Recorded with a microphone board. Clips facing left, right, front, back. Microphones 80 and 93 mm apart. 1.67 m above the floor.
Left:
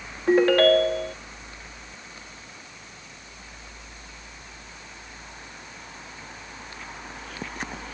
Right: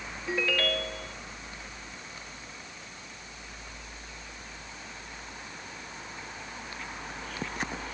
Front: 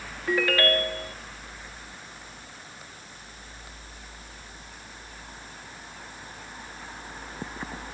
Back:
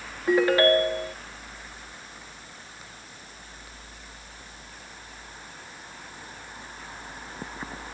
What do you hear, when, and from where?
0.3 s a ringtone: 115° left